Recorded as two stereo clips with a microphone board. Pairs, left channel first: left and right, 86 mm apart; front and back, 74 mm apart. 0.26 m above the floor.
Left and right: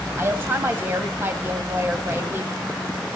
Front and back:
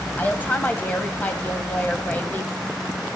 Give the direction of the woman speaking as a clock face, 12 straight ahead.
2 o'clock.